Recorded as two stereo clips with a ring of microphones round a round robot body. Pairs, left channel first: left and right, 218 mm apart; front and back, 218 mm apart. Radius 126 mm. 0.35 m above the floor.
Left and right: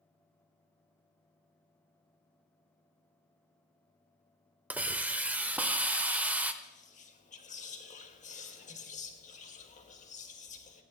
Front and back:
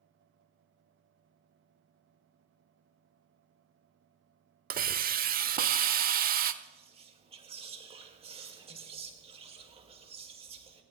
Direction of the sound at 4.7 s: 170° right.